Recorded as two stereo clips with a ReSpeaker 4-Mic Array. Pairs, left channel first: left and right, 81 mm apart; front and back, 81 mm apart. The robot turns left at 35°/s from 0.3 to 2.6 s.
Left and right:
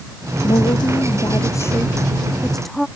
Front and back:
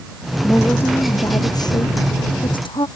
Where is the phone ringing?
No phone ringing in this recording.